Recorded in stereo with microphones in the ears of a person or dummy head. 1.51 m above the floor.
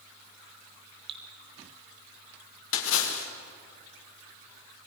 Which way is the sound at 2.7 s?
75° left (ahead or behind).